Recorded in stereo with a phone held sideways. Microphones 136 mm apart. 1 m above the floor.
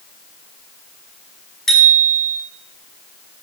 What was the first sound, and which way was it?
A bicycle bell, 5° left (ahead or behind).